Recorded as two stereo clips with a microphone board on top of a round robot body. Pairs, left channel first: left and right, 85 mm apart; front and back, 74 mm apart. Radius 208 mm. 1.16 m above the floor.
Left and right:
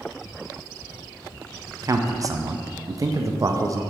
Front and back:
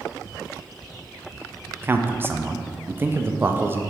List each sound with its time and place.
1.8 s a man speaking: 125° right, 0.5 m